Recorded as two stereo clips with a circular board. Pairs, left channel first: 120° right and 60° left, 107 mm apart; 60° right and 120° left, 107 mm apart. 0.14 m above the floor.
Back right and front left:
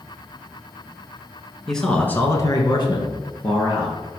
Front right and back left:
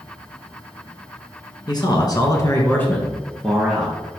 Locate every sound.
1.7 s a man speaking: 35° right, 1.7 m; by 4.0 s 155° right, 2.5 m